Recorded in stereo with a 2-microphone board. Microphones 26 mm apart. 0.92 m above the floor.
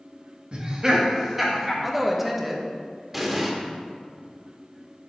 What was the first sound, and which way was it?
Laughter, 45° right (ahead or behind).